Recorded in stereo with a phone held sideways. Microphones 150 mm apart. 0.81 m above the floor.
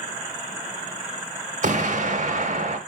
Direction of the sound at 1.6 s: 55° right (ahead or behind).